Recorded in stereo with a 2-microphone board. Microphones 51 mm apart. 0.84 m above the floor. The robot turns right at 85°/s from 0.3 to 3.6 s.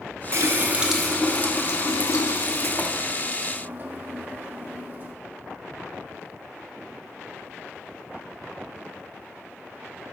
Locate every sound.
0.3 s a running tap: 60° right, 0.6 m; by 5.1 s 145° right, 0.6 m